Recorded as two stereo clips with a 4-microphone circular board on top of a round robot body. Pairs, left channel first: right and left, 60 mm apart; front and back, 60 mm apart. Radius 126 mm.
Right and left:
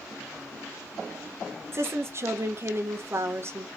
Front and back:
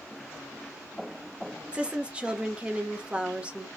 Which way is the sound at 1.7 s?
115° left.